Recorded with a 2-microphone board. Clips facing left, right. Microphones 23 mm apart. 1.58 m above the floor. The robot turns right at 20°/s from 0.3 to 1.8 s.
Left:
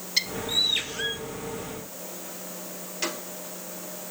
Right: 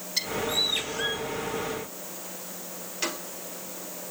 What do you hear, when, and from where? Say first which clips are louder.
0.2 s a bird: left 2 dB; 20° left (ahead or behind), 1.1 m; by 1.2 s 5° left (ahead or behind), 1.1 m